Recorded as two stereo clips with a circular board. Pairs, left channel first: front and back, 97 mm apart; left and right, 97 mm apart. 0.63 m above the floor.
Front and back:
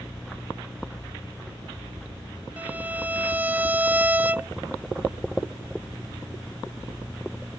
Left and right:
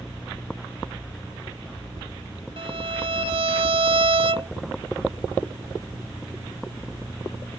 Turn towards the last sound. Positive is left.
turn(degrees=-110)